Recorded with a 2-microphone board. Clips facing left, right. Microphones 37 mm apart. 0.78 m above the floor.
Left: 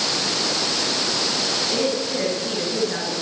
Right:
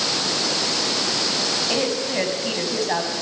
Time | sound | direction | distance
1.7 | a woman speaking | 80° right | 7 m